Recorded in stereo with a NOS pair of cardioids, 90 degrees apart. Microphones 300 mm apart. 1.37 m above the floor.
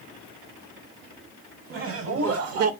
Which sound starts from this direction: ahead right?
Laughter, at 1.7 s.